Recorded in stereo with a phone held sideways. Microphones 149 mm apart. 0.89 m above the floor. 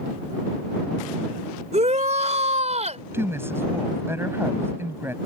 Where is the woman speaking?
15° right (ahead or behind).